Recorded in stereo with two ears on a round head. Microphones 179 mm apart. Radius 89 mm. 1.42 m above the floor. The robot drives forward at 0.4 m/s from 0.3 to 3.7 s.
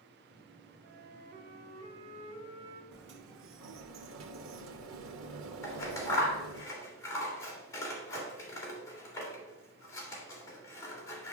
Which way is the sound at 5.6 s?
15° left (ahead or behind).